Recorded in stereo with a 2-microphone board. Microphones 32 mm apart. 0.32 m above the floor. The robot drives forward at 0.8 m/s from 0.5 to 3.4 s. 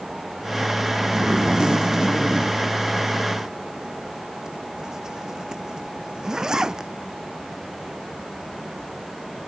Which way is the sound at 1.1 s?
20° right (ahead or behind).